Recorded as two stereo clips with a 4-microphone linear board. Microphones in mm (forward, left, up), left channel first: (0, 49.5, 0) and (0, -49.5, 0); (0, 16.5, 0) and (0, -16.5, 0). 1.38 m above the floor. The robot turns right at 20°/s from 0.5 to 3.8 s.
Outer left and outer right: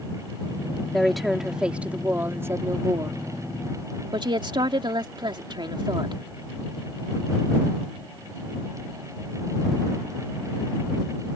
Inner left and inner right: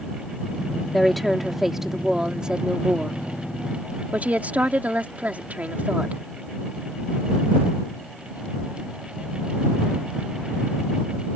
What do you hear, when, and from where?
0.9 s a woman speaking: 175° left; by 6.2 s 130° right